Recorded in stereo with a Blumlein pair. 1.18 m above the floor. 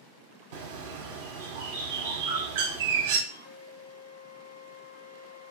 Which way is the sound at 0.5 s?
55° right.